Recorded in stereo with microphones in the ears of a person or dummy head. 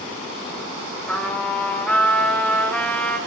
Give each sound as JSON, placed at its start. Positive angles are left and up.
{"t": 1.1, "sound": "a trumpet", "side_deg": 10, "distance_m": 5.0}